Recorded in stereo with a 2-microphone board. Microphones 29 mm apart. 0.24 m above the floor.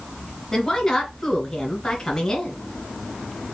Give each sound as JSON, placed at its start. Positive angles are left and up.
{"t": 0.5, "sound": "a woman speaking", "side_deg": 15, "distance_m": 2.5}